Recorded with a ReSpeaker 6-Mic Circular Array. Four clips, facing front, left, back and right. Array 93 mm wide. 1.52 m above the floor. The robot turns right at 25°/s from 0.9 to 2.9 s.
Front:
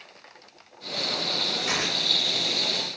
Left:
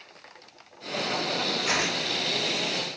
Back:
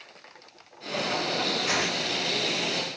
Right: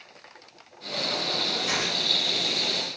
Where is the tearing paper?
85° left, 2 m; by 2.0 s 95° left, 2 m.